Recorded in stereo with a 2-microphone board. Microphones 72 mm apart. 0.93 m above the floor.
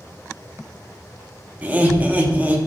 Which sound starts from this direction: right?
Laughter, at 1.6 s.